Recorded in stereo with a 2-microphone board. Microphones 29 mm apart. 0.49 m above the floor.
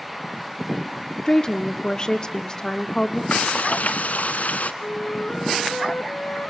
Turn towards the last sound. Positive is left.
turn(degrees=65)  # may be behind; listen again after turning